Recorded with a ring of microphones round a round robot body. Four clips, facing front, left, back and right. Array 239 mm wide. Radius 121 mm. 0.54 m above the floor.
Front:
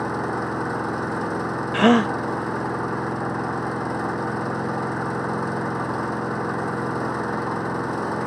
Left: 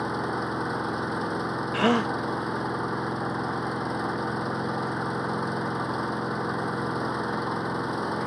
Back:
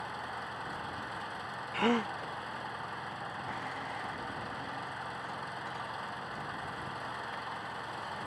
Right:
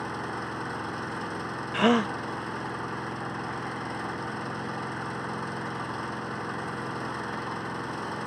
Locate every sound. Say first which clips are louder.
0.0 s an engine running: left 5 dB, front 15 dB; 25° left
1.7 s a gasp: right 1 dB, front 13 dB; straight ahead